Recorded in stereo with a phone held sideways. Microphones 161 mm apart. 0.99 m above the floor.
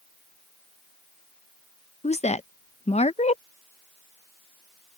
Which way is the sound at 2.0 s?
45° left (ahead or behind).